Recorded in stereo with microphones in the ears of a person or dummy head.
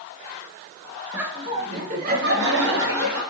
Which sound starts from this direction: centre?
Laughter, at 1.1 s.